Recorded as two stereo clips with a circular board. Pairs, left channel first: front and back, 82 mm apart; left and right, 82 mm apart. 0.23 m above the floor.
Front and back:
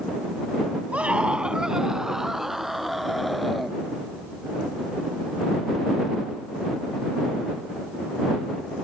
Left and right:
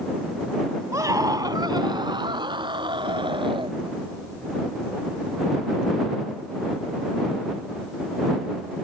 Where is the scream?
115° right; by 3.8 s 90° right.